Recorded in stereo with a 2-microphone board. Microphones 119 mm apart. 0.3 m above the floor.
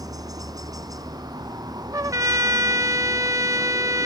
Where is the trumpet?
30° right (ahead or behind).